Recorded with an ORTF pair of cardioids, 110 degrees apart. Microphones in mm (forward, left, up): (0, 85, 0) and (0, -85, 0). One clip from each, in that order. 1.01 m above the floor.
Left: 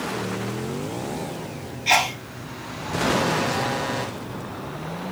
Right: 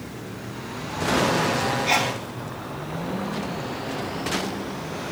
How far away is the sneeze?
About 1.2 m.